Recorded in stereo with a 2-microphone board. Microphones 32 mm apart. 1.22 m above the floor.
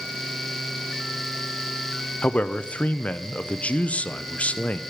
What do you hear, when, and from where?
2.2 s a man speaking: 45° left (ahead or behind), 0.6 m